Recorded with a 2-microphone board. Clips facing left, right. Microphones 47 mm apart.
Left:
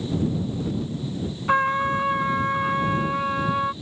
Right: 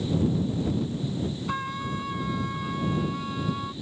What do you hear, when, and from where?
1.5 s a trumpet: 45° left (ahead or behind)